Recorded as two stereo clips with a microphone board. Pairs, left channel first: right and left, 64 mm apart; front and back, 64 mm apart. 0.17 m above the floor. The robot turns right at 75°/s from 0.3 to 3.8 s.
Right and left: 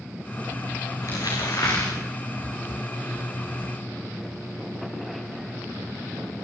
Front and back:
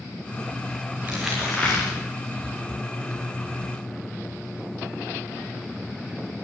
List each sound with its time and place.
1.0 s crumpling: 115° right, 10 m; by 1.9 s 45° right, 10 m